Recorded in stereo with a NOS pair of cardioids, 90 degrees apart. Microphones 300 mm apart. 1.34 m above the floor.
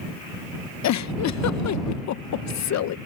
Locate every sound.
0.8 s a giggle: 60° left